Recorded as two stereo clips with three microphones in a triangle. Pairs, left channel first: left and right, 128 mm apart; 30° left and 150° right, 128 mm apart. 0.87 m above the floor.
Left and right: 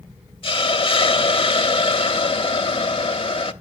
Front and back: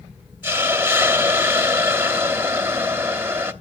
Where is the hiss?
135° left, 0.8 m.